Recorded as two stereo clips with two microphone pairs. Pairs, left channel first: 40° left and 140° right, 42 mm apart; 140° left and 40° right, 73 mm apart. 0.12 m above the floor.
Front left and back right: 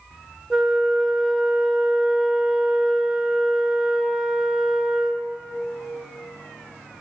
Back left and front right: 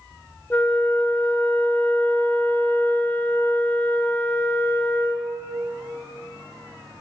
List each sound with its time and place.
0.5 s a flute: 165° left, 0.8 m